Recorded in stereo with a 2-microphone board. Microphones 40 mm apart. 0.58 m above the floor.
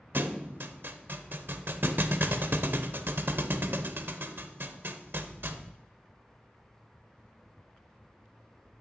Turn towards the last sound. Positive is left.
turn(degrees=-60)  # may be behind; listen again after turning